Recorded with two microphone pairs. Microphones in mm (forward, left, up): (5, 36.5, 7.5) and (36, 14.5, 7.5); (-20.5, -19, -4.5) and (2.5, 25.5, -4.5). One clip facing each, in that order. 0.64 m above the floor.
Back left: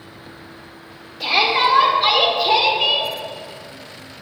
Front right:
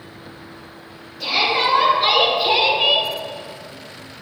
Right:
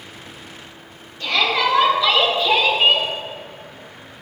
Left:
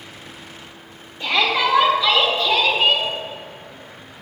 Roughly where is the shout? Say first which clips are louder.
Back left 2 dB, even; left.